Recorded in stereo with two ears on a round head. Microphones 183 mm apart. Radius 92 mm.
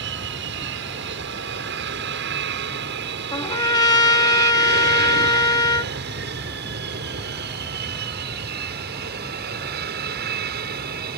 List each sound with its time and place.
0.0 s an aircraft: 60° right (ahead or behind); by 11.2 s 50° right (ahead or behind)
3.3 s a trumpet: 20° left (ahead or behind)